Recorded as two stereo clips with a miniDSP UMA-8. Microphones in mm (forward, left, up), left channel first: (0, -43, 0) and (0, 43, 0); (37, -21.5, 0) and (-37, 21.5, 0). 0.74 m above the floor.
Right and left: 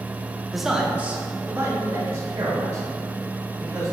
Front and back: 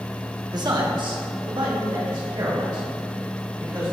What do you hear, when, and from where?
0.5 s a man speaking: straight behind, 1.1 m; by 3.9 s 125° left, 4 m